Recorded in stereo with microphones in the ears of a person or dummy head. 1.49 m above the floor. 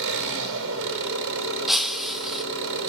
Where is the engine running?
70° right (ahead or behind), 7 m.